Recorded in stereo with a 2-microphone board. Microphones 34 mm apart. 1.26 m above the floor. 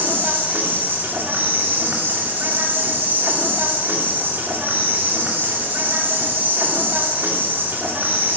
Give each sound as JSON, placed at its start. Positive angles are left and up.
{"t": 0.0, "sound": "an insect", "side_deg": -65, "distance_m": 2.5}